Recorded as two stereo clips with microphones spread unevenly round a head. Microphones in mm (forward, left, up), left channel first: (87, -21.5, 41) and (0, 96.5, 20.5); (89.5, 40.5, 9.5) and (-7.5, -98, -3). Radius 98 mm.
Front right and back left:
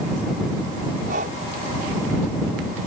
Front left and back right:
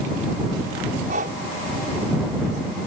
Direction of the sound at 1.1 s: Straight behind.